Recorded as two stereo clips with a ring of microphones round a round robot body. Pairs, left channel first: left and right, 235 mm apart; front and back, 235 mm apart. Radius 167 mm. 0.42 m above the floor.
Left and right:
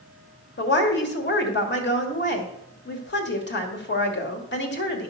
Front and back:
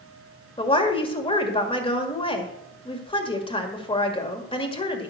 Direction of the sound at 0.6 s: 65° left.